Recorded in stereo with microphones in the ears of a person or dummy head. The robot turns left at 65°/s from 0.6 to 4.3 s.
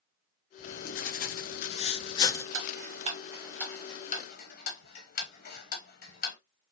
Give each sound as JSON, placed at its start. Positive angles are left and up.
{"t": 0.6, "sound": "writing", "azimuth_deg": 135, "distance_m": 0.6}
{"t": 2.5, "sound": "ticking", "side_deg": -60, "distance_m": 0.7}